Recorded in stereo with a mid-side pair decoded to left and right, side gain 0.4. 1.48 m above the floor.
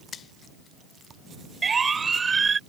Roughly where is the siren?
Ahead right.